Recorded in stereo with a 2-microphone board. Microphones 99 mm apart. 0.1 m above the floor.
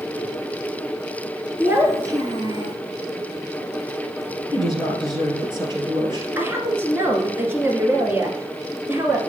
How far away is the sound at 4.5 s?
About 2 m.